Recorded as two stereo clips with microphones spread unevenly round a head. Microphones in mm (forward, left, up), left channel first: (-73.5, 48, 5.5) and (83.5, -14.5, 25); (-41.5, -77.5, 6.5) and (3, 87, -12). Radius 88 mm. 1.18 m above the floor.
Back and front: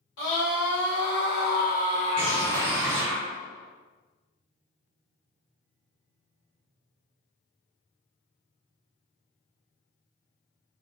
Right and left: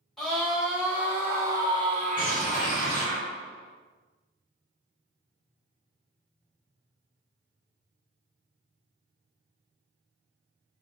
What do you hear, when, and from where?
0.2 s a scream: 165° left, 1.4 m; by 3.2 s 60° left, 0.7 m
2.2 s a bird: straight ahead, 0.9 m